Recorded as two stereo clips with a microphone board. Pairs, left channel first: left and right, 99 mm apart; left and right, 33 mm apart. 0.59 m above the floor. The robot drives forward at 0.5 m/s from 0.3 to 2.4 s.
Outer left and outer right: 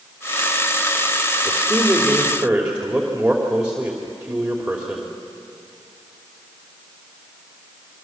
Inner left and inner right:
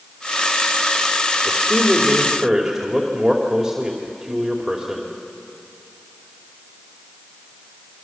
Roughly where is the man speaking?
Centre.